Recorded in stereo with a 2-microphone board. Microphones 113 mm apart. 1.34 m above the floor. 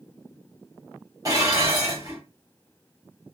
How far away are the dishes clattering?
About 1.3 m.